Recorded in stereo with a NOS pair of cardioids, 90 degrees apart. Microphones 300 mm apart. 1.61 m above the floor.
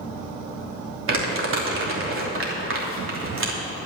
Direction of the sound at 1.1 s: 45° right.